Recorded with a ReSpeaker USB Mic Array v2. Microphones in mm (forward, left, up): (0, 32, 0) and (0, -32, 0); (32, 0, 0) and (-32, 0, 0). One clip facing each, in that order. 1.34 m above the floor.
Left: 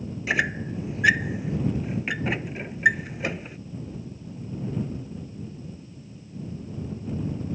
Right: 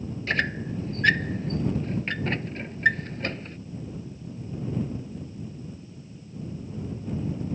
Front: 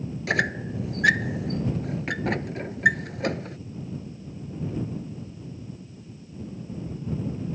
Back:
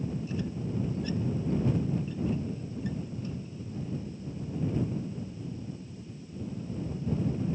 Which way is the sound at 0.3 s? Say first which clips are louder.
Left 2 dB, front 9 dB; 10° left.